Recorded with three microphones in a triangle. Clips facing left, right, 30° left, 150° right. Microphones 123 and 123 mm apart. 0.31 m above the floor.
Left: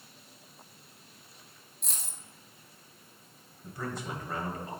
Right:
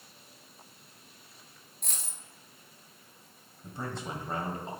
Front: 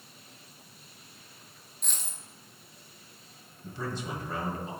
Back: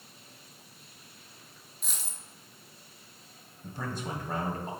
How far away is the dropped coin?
About 1.1 m.